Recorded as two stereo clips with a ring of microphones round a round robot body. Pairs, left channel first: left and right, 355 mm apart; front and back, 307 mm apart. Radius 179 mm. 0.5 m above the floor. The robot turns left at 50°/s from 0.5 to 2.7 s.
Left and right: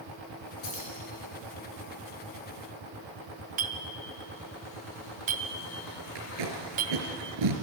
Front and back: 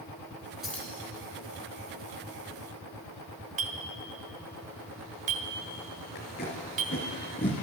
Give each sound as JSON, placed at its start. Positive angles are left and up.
{"t": 0.6, "sound": "keys jangling", "azimuth_deg": 90, "distance_m": 4.0}
{"t": 3.6, "sound": "a clink", "azimuth_deg": -140, "distance_m": 0.8}
{"t": 6.2, "sound": "tape being pulled", "azimuth_deg": -65, "distance_m": 3.0}